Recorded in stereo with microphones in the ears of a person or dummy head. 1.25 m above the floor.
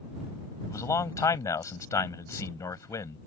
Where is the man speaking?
15° left (ahead or behind).